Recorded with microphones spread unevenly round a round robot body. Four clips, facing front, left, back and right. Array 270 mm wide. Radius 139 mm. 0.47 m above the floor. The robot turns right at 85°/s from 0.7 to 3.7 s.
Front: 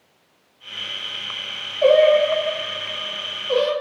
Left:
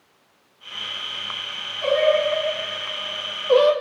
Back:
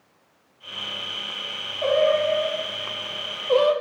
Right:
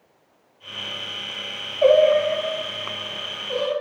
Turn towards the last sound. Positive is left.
turn(degrees=110)